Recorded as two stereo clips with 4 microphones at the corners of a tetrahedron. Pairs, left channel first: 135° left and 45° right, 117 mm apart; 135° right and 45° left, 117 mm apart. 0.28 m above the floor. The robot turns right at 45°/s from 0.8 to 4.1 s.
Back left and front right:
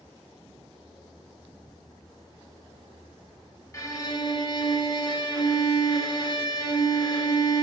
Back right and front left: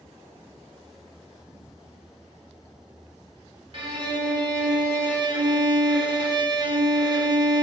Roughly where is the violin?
Left.